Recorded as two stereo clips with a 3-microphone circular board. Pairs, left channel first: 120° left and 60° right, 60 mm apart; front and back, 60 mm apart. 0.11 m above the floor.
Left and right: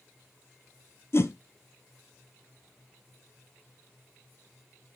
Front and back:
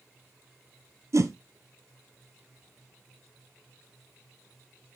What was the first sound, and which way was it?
A whoosh, 155° left.